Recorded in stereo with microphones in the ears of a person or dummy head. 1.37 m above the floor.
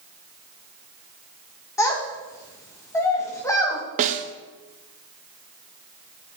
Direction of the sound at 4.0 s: 35° right (ahead or behind).